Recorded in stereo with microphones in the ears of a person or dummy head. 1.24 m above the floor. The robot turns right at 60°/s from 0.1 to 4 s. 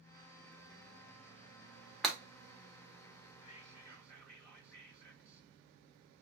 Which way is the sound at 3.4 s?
140° left.